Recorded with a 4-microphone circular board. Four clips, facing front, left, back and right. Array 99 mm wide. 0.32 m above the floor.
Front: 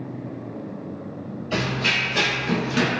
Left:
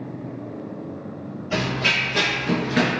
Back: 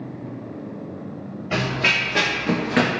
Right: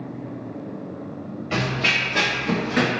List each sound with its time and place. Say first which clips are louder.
1.5 s running footsteps: even, back 2 dB; 160° right, 1.8 m; by 2.9 s 170° left, 0.6 m